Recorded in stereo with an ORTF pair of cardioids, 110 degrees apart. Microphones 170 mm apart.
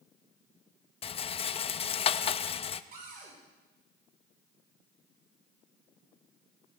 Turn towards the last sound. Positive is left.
turn(degrees=-60)